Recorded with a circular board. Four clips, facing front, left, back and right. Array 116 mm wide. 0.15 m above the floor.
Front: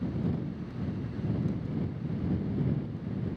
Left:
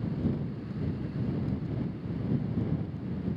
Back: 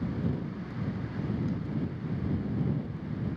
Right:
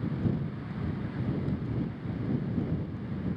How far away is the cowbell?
I don't hear a cowbell.